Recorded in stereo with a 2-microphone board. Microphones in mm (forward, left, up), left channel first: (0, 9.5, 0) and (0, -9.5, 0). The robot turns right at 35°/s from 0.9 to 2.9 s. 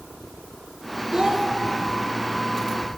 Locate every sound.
1.1 s a child speaking: 40° right (ahead or behind), 1.3 m; by 1.5 s 30° right (ahead or behind), 1.3 m